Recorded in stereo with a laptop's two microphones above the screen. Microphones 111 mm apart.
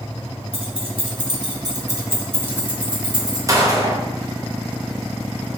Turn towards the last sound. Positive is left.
turn(degrees=-30)  # may be behind; listen again after turning